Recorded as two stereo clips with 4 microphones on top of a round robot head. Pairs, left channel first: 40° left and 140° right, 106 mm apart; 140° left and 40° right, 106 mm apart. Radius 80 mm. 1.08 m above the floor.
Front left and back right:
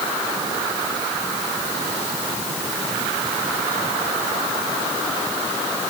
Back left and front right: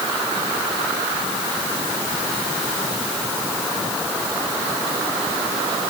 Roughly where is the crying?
No crying in this recording.